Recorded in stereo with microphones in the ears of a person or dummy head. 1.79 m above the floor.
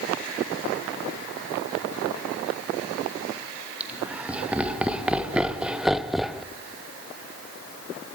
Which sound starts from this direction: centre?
Laughter, at 3.8 s.